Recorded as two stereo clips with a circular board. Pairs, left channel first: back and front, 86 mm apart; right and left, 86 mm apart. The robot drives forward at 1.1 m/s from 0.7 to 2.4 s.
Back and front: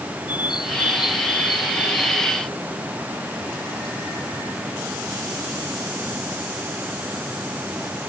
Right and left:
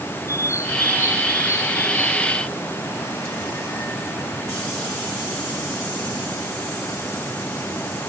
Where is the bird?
145° right; by 2.3 s 150° right.